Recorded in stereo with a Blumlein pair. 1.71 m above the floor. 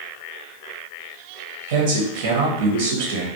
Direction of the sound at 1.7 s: 55° right.